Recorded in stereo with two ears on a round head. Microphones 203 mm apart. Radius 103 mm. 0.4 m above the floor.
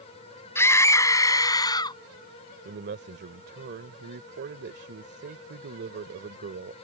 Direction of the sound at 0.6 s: 10° left (ahead or behind).